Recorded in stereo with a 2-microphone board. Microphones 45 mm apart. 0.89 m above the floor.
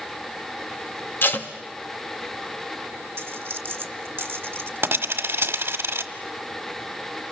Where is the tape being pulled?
55° left (ahead or behind), 1.3 m.